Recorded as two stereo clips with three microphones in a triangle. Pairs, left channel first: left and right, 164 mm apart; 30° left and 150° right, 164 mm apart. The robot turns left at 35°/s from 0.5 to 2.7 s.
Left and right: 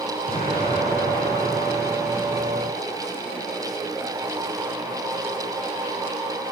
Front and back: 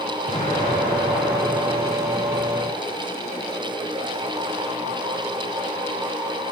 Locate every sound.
0.3 s an explosion: 70° left, 9 m; by 2.7 s 10° right, 9 m